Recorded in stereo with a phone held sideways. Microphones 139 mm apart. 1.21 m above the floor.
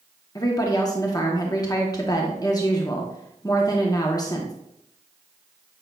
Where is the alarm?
No alarm in this recording.